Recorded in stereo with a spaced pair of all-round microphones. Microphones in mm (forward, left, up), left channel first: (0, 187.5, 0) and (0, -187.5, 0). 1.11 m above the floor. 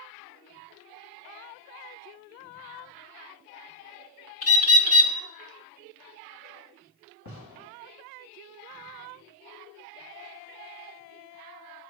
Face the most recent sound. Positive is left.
turn(degrees=65)  # may be behind; listen again after turning